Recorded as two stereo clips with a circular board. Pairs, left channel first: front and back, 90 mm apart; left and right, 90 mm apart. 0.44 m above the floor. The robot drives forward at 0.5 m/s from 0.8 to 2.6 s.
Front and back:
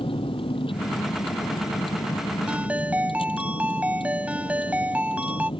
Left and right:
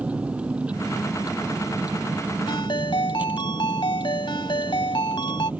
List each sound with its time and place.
0.0 s a vehicle: 15° right
2.5 s a ringtone: 105° left